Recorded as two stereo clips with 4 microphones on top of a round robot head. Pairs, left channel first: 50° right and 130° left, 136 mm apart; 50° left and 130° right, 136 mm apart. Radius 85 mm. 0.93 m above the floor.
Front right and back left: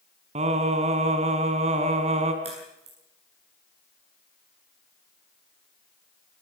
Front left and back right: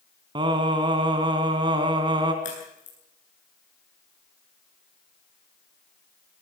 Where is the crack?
80° left, 9 m.